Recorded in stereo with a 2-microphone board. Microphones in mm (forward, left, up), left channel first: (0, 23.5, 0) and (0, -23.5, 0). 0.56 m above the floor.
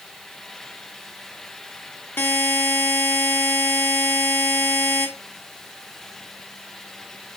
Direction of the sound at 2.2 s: 50° left (ahead or behind).